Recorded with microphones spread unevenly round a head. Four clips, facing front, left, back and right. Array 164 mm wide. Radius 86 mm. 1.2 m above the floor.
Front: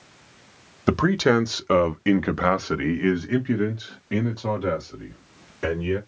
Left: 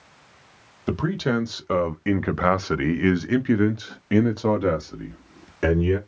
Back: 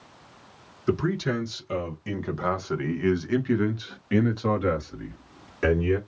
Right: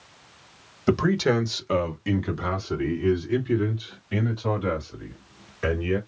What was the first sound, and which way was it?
A man speaking, 10° right.